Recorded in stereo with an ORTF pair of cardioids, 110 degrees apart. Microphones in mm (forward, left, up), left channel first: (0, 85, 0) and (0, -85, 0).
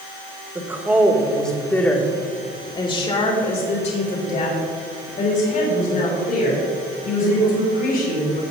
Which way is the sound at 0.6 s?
20° right.